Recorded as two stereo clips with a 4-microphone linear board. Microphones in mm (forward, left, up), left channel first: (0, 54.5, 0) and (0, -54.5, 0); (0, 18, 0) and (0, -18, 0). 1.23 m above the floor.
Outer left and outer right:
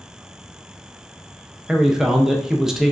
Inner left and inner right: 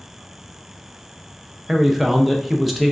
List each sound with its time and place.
1.7 s a man speaking: 5° right (ahead or behind), 0.6 m